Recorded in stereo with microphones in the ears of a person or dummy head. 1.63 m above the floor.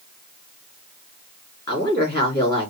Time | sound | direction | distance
1.7 | a woman speaking | 20° left (ahead or behind) | 3.5 m